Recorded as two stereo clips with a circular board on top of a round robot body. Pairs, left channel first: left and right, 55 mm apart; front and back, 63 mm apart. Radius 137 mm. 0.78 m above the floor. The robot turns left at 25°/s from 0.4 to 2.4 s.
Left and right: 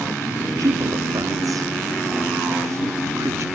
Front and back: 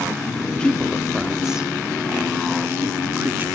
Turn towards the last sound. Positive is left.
turn(degrees=-120)